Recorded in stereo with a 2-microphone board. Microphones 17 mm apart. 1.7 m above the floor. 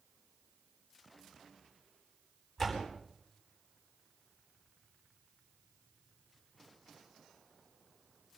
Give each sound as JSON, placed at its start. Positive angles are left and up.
{"t": 2.6, "sound": "a door slam", "side_deg": 20, "distance_m": 9.0}